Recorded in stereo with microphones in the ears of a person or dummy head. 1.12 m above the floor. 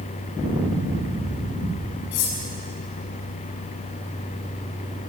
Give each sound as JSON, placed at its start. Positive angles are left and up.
{"t": 2.1, "sound": "cutlery clinking", "side_deg": 55, "distance_m": 7.0}